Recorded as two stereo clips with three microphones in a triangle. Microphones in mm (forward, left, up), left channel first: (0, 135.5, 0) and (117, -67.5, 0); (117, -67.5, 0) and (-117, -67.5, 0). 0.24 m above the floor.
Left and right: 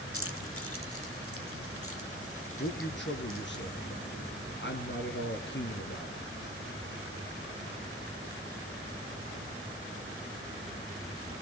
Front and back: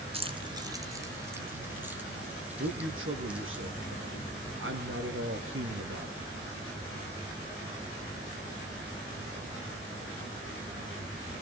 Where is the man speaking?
155° left, 3 m.